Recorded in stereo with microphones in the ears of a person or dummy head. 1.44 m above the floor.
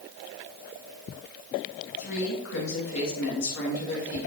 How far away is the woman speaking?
About 1.9 m.